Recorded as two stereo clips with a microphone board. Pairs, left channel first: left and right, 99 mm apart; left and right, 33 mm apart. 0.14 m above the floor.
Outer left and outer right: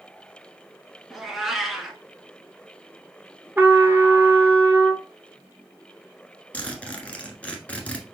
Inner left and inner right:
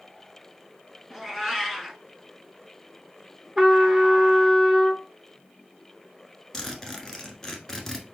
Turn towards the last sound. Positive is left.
turn(degrees=15)  # may be behind; listen again after turning